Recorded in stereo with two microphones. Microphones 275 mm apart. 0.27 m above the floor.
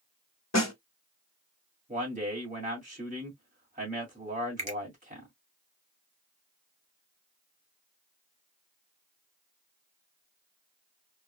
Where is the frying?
No frying in this recording.